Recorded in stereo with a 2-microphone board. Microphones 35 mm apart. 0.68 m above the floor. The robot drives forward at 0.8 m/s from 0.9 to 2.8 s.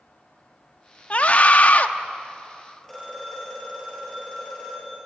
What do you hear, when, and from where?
1.1 s a scream: 40° left (ahead or behind), 1.1 m; by 1.9 s 45° left (ahead or behind), 1.0 m
2.8 s a phone ringing: 10° left (ahead or behind), 9.5 m